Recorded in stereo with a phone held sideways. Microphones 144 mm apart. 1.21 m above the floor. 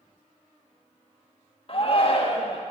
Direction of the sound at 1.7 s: 45° left (ahead or behind).